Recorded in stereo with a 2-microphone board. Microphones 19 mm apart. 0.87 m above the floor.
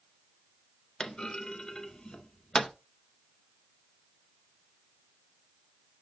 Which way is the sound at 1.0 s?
50° left (ahead or behind).